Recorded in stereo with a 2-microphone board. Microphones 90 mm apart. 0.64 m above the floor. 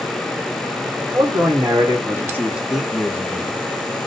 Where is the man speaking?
50° right (ahead or behind), 2 m; by 3.7 s 35° left (ahead or behind), 1.3 m.